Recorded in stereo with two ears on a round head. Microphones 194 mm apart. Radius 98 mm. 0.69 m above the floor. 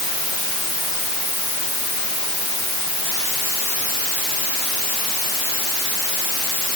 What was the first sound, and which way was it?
Only background noise.